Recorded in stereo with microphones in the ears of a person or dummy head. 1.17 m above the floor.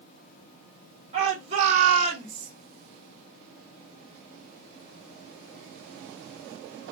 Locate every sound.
1.1 s a shout: 35° right (ahead or behind), 1.4 m; by 2.5 s 25° right (ahead or behind), 0.7 m